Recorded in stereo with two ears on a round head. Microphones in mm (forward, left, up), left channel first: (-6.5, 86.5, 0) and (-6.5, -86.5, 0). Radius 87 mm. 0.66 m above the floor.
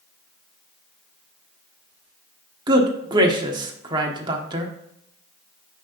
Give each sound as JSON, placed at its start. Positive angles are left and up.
{"t": 2.7, "sound": "a man speaking", "side_deg": -25, "distance_m": 1.2}